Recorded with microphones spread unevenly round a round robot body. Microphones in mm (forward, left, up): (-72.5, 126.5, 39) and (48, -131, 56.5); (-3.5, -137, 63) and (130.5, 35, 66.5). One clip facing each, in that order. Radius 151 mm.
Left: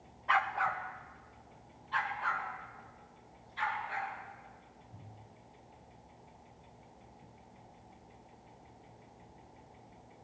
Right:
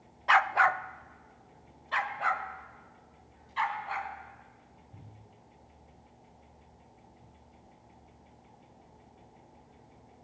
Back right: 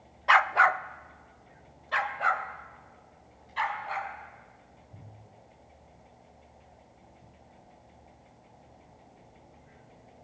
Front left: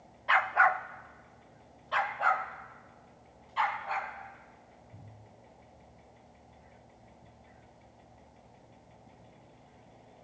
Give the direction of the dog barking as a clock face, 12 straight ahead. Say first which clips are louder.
Right 7 dB, back right 2 dB; 3 o'clock.